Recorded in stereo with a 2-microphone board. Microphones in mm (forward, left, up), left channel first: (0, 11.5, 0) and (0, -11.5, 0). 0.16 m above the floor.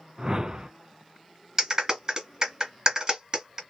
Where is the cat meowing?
I don't hear a cat meowing.